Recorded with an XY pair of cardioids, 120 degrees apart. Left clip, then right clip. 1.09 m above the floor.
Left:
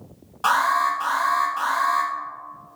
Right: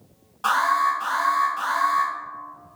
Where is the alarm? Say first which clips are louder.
Left 1 dB; 30° left, 1.1 m.